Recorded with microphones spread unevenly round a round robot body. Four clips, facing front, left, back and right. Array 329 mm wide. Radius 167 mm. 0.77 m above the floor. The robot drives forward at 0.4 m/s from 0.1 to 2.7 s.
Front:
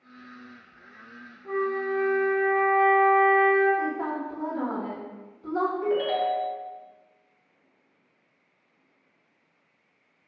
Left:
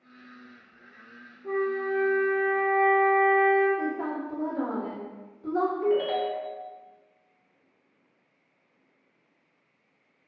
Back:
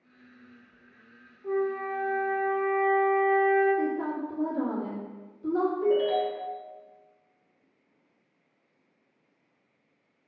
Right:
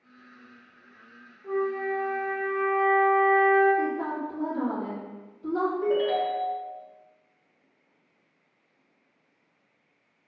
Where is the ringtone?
140° right, 1.0 m.